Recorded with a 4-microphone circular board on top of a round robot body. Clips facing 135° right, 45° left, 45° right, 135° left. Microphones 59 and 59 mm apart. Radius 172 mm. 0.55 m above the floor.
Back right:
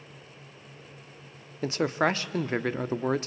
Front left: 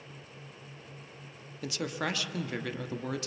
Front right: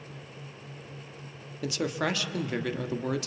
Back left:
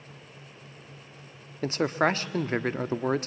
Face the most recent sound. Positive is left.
turn(degrees=180)